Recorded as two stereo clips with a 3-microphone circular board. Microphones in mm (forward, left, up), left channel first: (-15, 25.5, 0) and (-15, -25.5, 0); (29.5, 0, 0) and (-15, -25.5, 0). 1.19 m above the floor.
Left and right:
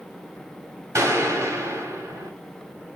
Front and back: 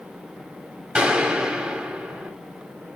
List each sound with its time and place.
0.9 s a gunshot: 75° right, 2.5 m